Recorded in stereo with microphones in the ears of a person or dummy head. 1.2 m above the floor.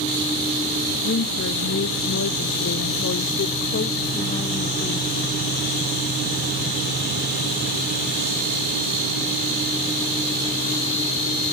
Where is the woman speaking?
55° left (ahead or behind), 1.5 m; by 5.2 s 20° left (ahead or behind), 1.8 m.